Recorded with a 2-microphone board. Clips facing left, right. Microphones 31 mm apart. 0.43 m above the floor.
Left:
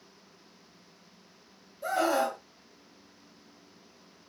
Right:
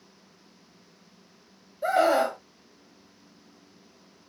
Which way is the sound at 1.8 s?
25° right (ahead or behind).